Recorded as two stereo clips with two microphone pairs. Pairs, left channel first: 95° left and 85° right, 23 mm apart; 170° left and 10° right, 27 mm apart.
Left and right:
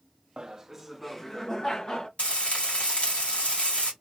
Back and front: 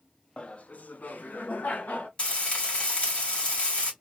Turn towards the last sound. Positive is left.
turn(degrees=130)